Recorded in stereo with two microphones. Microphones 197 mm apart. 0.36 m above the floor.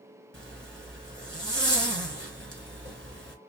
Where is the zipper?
85° right, 1.3 m.